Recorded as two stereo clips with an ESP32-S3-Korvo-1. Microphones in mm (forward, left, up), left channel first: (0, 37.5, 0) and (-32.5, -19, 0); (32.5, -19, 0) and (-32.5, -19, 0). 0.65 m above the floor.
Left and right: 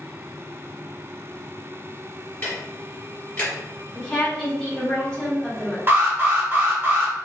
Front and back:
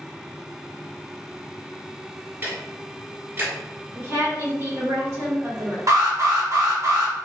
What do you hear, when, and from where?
2.4 s ticking: 125° left, 2.0 m
4.0 s a woman speaking: 140° left, 1.7 m
5.9 s an alarm: 170° right, 0.9 m